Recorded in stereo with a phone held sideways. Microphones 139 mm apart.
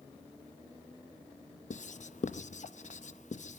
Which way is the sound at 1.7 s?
60° left (ahead or behind).